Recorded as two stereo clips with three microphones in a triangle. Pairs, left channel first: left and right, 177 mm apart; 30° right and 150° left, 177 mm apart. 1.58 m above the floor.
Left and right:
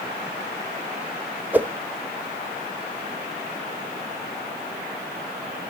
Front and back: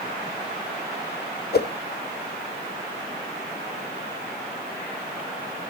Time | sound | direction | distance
1.5 | a whoosh | 10° right | 0.5 m